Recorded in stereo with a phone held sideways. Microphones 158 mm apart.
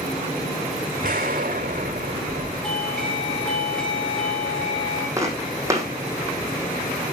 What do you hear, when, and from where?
1.0 s an explosion: 70° right (ahead or behind), 4 m
2.6 s a doorbell: 5° left (ahead or behind), 2 m
5.2 s footsteps: 20° right (ahead or behind), 3 m